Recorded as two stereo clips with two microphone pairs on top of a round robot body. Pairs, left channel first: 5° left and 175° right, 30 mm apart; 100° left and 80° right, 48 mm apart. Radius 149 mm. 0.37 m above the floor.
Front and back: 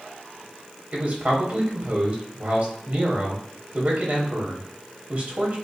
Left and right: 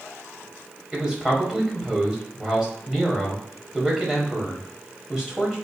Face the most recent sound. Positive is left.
turn(degrees=-155)